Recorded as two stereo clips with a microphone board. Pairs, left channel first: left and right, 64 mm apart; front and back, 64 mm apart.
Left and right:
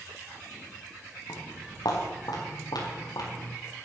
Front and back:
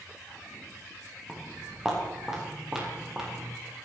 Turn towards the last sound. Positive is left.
turn(degrees=100)